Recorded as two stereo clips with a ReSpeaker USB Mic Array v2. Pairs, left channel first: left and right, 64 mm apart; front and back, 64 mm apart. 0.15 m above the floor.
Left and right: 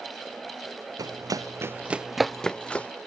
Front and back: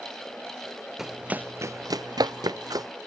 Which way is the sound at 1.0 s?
95° right.